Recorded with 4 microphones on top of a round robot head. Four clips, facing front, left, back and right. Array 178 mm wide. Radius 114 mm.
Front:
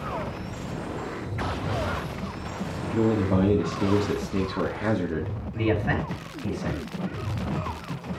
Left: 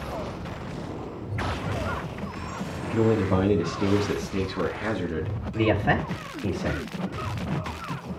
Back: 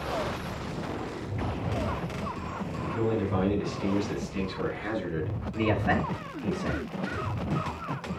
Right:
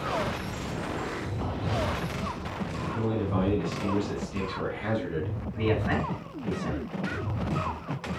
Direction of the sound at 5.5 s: 100° left.